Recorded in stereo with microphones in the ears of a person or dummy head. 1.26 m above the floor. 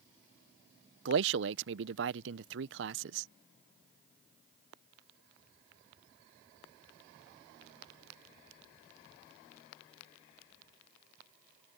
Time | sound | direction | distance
1.1 | a man speaking | 55° right (ahead or behind) | ?